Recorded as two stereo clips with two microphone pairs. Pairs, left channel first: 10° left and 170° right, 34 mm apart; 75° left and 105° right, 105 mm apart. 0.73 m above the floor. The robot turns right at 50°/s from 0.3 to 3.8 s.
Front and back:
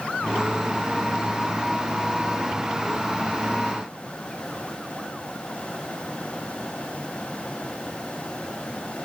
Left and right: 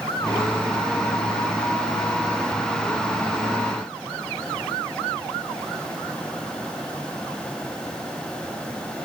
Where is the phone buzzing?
No phone buzzing in this recording.